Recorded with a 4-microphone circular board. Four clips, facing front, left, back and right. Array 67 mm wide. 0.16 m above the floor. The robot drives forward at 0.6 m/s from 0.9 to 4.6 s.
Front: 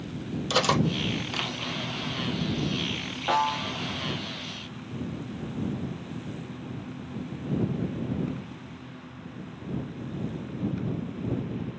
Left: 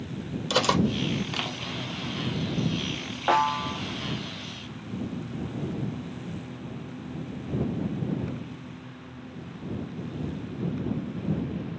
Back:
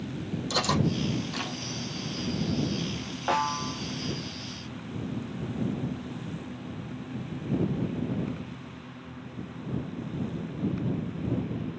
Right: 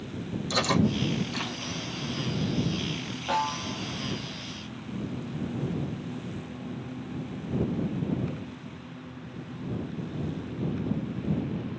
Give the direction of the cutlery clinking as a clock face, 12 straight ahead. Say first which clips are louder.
Left 2 dB, front 3 dB; 10 o'clock.